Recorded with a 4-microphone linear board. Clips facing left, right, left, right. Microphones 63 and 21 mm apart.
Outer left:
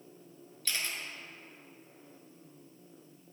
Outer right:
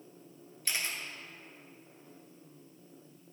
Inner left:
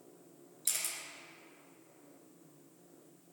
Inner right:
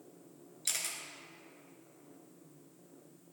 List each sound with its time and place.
0.7 s a camera shutter: 20° right (ahead or behind), 0.8 m